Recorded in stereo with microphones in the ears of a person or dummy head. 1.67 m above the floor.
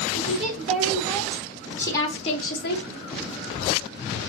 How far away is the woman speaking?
About 3.5 m.